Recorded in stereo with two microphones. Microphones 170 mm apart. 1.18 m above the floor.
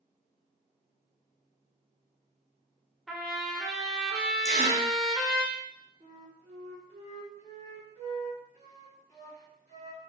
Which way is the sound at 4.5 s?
20° right (ahead or behind).